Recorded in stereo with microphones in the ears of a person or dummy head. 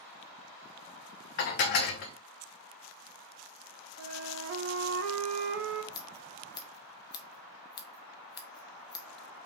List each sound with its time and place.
1.4 s dishes clattering: 50° left (ahead or behind), 0.7 m
4.0 s a flute: 55° right (ahead or behind), 0.7 m
5.9 s scissors: 20° left (ahead or behind), 0.9 m